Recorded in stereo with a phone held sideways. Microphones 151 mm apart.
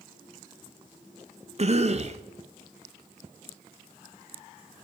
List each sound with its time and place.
1.6 s a cough: 45° right (ahead or behind), 0.8 m